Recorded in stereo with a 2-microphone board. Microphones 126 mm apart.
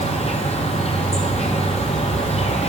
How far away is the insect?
About 1.0 m.